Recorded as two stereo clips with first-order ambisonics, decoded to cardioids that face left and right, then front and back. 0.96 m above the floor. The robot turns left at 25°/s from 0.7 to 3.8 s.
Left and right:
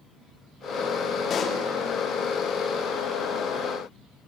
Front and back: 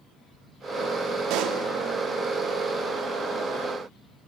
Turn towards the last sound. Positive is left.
turn(degrees=90)